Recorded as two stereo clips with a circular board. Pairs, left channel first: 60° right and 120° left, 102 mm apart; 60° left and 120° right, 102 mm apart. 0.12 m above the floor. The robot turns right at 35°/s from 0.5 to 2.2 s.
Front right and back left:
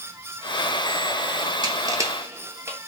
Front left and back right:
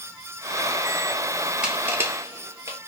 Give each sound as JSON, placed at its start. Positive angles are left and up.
{"t": 1.6, "sound": "crushing", "azimuth_deg": 160, "distance_m": 0.7}